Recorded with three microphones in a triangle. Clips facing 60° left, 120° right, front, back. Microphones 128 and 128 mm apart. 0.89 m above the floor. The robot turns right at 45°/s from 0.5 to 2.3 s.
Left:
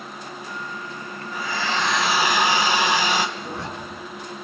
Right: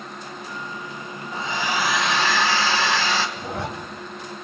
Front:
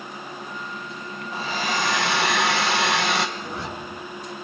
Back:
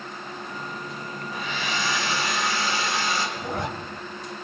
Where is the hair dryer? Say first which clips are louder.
Right 1 dB, front 5 dB; 60° right, 3 m; by 3.3 s 15° right, 3 m.